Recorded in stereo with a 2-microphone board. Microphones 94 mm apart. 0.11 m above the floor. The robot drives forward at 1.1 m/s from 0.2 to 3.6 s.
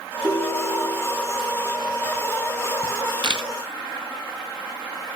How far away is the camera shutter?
About 1.8 m.